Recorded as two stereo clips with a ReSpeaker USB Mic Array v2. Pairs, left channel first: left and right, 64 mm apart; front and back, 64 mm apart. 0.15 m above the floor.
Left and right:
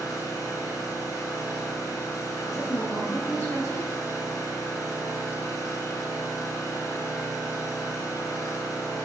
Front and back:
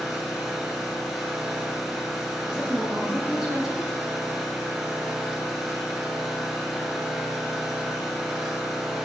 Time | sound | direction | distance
0.0 | an engine running | 95° left | 1.5 m
2.5 | a woman speaking | 105° left | 2 m